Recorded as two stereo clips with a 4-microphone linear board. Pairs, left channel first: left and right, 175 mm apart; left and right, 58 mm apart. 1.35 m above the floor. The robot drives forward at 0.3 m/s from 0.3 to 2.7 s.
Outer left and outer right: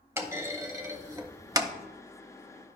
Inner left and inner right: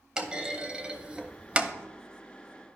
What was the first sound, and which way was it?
A clunk, 15° right (ahead or behind).